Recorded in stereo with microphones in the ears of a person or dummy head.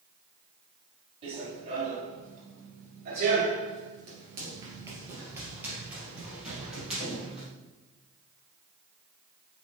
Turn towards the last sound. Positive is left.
turn(degrees=0)  # may be behind; listen again after turning